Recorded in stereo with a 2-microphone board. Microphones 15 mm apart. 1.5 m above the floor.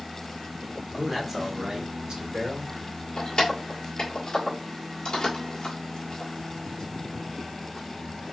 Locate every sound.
0.9 s a man speaking: 5° right (ahead or behind), 1.2 m; by 2.8 s 75° right (ahead or behind), 2.5 m
3.2 s keys jangling: 50° left (ahead or behind), 1.5 m